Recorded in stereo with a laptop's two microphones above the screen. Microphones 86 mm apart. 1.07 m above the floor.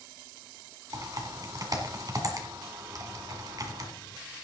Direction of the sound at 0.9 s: 45° right (ahead or behind).